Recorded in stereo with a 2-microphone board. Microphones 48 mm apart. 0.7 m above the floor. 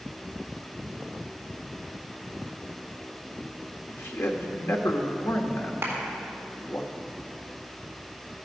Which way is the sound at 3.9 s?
65° left (ahead or behind).